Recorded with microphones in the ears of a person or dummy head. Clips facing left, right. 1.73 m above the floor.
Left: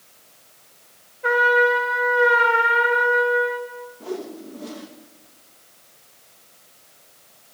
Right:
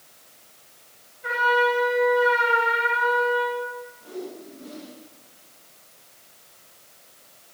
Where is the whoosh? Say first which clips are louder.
Left 7 dB; 75° left (ahead or behind), 3 m.